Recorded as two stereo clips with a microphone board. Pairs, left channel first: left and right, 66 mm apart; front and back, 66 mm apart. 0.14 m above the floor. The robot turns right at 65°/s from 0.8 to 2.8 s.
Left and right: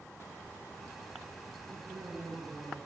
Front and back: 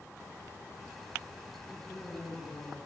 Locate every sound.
1.7 s a man speaking: 80° right, 8 m; by 2.8 s 5° right, 8 m